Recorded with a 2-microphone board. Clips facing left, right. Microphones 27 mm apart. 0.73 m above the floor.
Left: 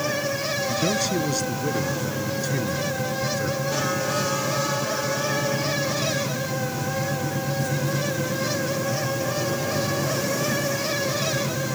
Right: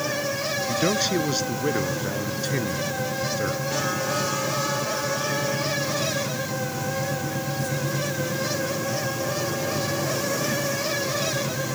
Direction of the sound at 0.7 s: 25° right (ahead or behind).